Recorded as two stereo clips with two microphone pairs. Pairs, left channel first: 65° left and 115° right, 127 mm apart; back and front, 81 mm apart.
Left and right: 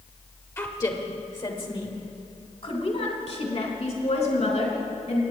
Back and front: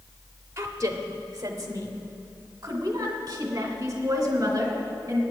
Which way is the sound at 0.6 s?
10° left.